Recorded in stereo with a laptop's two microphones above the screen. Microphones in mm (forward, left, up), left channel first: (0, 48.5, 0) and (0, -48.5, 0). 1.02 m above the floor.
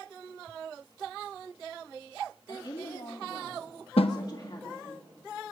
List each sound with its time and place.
2.5 s a woman speaking: 45° left (ahead or behind), 2.5 m
4.0 s a snare drum: 75° left (ahead or behind), 0.9 m